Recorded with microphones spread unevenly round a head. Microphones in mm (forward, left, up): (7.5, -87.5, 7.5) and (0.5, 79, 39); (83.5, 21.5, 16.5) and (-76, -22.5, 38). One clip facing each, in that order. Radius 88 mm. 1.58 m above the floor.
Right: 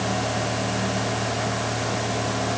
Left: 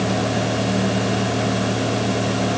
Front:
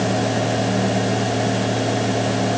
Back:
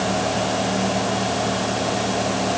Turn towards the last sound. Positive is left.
No sound to turn to.